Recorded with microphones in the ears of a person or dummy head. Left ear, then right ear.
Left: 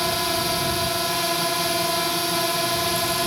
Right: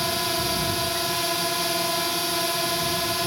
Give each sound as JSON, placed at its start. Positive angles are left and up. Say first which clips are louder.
{"t": 0.0, "sound": "a drone", "louder": "left 2 dB", "side_deg": 0}